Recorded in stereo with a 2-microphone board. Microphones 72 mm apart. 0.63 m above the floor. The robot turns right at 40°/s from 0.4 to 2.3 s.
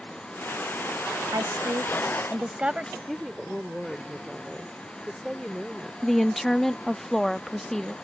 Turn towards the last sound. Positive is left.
turn(degrees=5)  # may be behind; listen again after turning